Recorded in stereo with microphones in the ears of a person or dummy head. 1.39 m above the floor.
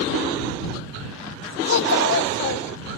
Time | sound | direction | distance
1.7 | a child speaking | 60° left (ahead or behind) | ?